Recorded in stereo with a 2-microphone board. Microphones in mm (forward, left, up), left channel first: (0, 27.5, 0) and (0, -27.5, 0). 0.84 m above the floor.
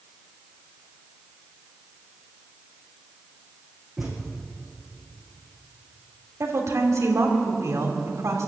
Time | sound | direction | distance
4.0 | a thud | 5° right (ahead or behind) | 4 m
6.4 | a woman speaking | 65° right (ahead or behind) | 2.5 m